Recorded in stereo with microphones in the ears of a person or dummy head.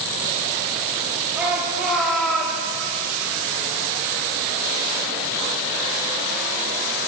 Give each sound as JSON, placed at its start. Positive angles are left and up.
{"t": 1.4, "sound": "a shout", "side_deg": -10, "distance_m": 3.0}